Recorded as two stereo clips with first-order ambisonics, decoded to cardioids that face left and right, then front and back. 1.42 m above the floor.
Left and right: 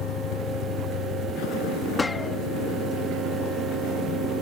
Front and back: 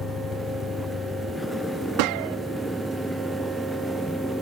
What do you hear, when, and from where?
0.0 s a vehicle: 60° left; by 4.4 s 95° left
2.0 s a gunshot: 170° left